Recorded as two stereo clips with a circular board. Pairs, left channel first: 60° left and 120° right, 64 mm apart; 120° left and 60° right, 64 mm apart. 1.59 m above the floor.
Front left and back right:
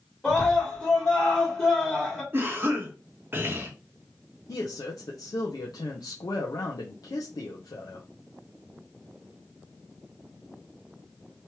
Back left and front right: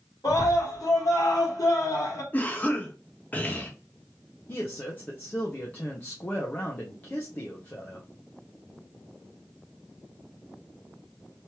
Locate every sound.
0.2 s a scream: 130° left, 1.7 m
2.3 s a cough: 175° right, 1.2 m
4.5 s a man speaking: 55° left, 0.8 m